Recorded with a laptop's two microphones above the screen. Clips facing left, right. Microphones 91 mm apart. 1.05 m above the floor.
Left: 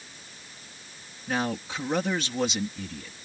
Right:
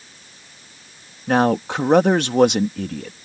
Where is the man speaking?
65° right (ahead or behind).